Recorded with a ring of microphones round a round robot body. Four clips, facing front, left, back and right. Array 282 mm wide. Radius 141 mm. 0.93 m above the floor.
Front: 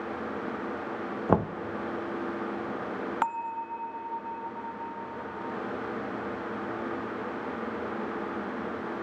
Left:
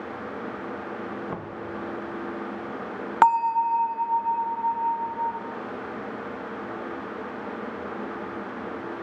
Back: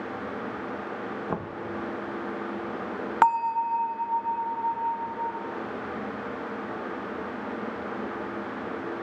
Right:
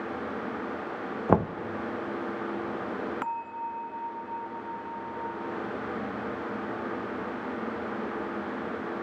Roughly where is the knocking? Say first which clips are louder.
Right 10 dB, front 11 dB; ahead right.